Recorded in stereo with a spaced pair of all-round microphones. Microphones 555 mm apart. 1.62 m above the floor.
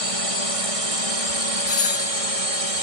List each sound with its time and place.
0.0 s a drone: 65° right (ahead or behind); by 2.8 s 70° right (ahead or behind)
1.7 s a doorbell: 75° left (ahead or behind)